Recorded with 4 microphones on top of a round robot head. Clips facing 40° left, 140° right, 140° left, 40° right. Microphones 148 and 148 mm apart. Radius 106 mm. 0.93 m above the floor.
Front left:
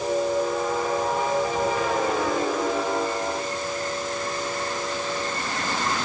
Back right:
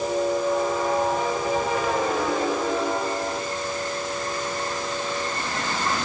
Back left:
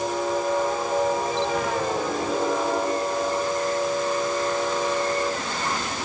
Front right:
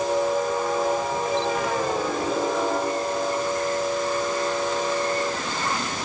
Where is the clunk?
No clunk in this recording.